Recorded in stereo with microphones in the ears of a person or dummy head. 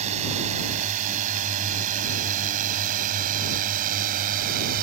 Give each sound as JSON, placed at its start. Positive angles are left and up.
{"t": 0.0, "sound": "a drone", "side_deg": -40}